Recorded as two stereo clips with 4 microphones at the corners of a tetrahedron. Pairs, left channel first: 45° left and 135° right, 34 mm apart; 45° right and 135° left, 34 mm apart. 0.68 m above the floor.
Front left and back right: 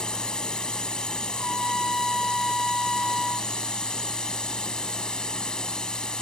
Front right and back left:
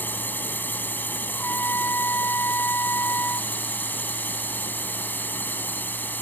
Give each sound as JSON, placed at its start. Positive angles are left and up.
{"t": 0.0, "sound": "a drone", "azimuth_deg": -20}
{"t": 1.3, "sound": "a trumpet", "azimuth_deg": -40}